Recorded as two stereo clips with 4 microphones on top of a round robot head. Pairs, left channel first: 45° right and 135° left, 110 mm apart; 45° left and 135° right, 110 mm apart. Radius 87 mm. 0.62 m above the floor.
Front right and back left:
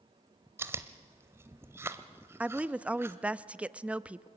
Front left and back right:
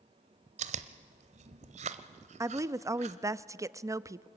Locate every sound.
0.6 s chewing: 160° right, 0.8 m
2.4 s a woman speaking: 160° right, 0.6 m